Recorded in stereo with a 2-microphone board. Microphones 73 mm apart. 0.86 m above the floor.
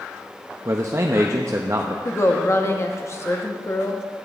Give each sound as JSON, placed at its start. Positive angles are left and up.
{"t": 0.7, "sound": "a man speaking", "side_deg": -40, "distance_m": 0.6}
{"t": 2.0, "sound": "a woman speaking", "side_deg": 40, "distance_m": 1.1}